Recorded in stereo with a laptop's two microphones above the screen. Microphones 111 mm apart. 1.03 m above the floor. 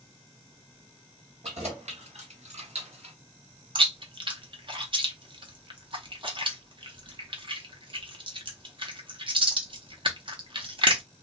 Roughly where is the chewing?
Right.